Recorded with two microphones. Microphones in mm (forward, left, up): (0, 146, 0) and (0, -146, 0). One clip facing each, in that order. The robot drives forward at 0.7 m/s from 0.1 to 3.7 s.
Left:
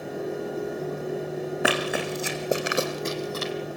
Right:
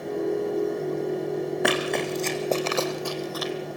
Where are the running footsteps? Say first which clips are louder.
Left 1 dB; 5° left (ahead or behind), 3.5 m; by 3.5 s 35° left (ahead or behind), 1.9 m.